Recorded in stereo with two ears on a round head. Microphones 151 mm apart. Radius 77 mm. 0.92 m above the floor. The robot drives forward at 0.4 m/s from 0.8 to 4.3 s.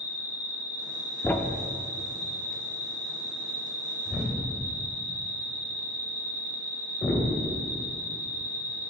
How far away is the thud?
About 0.5 m.